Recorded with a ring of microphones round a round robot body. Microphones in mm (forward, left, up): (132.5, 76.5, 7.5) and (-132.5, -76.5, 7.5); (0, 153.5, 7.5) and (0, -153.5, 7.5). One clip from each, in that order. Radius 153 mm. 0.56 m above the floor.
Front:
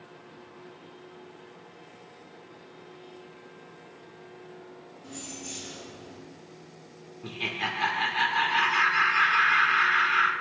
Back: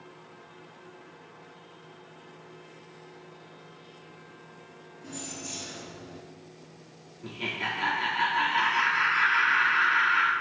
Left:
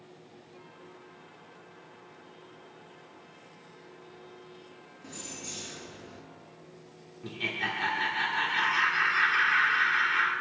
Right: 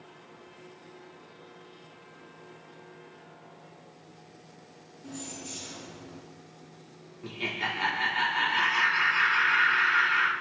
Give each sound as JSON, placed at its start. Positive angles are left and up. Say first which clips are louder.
{"t": 5.0, "sound": "keys jangling", "louder": "back 2 dB, even", "azimuth_deg": 125, "distance_m": 4.5}
{"t": 7.2, "sound": "laughter", "louder": "front 1 dB, even", "azimuth_deg": -10, "distance_m": 1.1}